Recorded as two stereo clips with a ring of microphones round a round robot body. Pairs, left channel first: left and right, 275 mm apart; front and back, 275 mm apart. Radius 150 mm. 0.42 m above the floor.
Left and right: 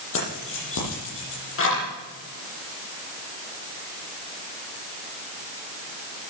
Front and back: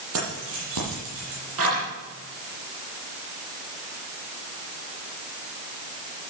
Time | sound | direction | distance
0.1 | keys jangling | 135° left | 9 m